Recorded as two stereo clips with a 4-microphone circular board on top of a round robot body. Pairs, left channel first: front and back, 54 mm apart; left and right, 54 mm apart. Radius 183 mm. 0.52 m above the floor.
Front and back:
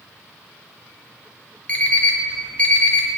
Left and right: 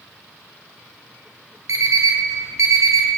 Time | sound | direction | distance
1.7 | an alarm clock | 70° right | 1.3 m